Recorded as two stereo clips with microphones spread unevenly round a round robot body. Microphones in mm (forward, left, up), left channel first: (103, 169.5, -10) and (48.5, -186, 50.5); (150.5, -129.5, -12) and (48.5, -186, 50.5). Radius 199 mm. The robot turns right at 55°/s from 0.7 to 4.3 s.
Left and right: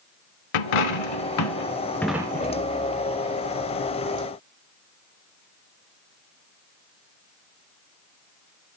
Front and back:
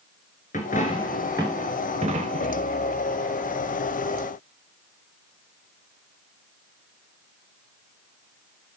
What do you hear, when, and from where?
0.5 s a dropped coin: 95° left, 0.9 m; by 2.7 s 155° right, 0.9 m